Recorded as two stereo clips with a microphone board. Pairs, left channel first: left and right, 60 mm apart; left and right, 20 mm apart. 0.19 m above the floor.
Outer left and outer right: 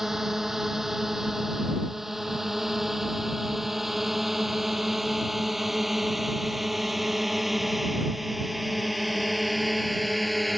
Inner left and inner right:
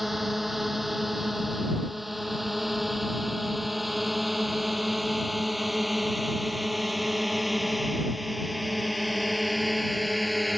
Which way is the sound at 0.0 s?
5° right (ahead or behind).